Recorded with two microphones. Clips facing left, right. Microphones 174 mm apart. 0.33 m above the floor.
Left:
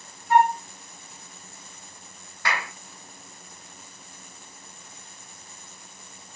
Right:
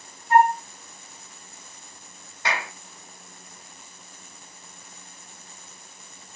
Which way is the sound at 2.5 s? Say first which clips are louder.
Right 1 dB; 25° right (ahead or behind).